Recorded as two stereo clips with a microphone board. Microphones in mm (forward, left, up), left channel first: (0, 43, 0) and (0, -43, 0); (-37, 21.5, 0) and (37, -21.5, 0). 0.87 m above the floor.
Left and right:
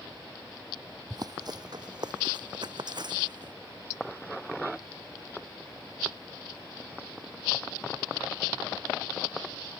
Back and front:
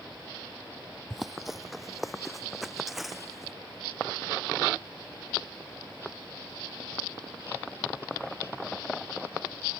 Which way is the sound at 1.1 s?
120° right.